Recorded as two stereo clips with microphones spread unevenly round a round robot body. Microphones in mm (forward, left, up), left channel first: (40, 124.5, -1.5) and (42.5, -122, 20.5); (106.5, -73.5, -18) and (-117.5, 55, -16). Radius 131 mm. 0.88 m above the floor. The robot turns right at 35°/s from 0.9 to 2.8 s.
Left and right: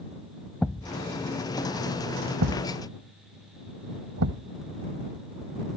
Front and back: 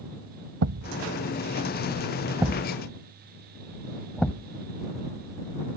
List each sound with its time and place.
0.6 s a thud: straight behind; by 4.5 s 115° right